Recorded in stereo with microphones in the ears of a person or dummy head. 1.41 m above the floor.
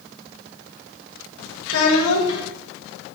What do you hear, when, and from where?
1.7 s a child speaking: 75° left (ahead or behind), 1.4 m